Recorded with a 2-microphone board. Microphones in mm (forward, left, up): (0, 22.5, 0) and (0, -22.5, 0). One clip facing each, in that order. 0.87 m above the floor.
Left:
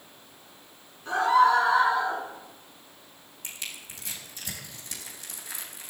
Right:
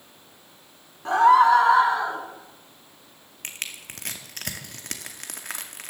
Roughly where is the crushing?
Right.